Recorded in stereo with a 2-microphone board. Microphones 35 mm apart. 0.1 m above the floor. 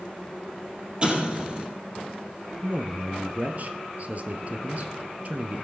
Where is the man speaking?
45° right (ahead or behind), 1.6 m.